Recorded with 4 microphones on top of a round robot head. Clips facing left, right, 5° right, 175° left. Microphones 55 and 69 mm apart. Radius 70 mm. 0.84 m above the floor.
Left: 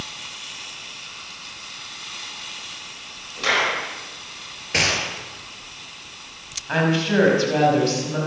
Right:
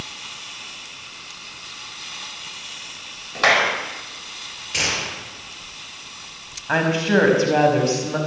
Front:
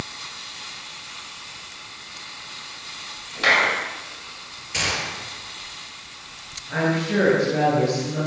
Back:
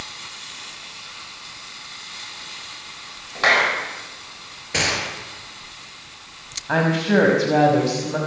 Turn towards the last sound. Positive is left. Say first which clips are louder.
# right 2 dB, back 4 dB
turn(degrees=-155)